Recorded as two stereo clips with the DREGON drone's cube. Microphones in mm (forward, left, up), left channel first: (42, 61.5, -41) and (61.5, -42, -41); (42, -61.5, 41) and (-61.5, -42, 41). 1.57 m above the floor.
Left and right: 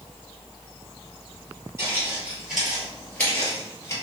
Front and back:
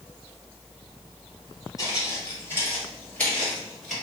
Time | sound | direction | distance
1.8 | footsteps | 30° right | 1.8 m